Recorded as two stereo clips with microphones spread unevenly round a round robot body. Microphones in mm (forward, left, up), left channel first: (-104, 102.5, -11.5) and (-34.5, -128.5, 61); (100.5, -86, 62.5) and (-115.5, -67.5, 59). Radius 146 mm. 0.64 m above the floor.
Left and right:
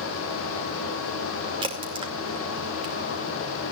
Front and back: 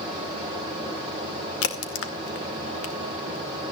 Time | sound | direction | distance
1.6 | a crack | 5° left | 2 m